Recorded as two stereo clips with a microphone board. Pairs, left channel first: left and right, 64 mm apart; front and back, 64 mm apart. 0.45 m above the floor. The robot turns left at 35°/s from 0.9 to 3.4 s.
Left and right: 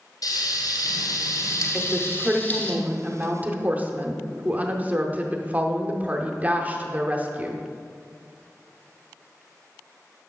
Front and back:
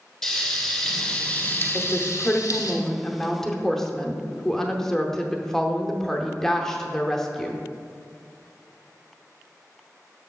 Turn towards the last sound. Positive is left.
turn(degrees=-75)